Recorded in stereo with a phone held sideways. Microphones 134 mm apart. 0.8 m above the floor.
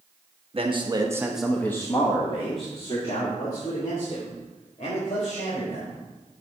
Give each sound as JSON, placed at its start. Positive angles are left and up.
{"t": 0.5, "sound": "a man speaking", "side_deg": -45, "distance_m": 1.1}